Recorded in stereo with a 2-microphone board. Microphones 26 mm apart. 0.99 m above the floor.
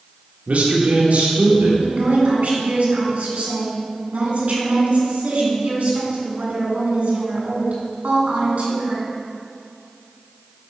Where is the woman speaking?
70° right (ahead or behind), 2.5 m.